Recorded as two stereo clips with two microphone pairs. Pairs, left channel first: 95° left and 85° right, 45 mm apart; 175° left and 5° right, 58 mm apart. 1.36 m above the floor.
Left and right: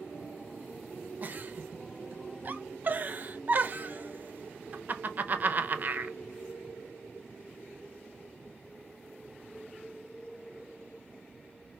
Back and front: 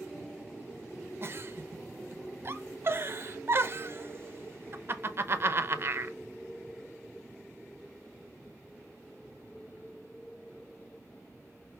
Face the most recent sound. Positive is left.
turn(degrees=-45)